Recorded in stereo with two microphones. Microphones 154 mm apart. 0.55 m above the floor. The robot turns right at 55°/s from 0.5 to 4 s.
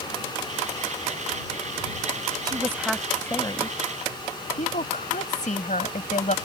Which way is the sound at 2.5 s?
30° right.